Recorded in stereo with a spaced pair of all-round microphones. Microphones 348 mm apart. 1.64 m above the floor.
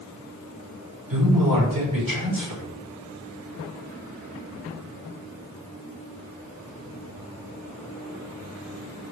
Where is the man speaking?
70° right (ahead or behind), 5.5 m.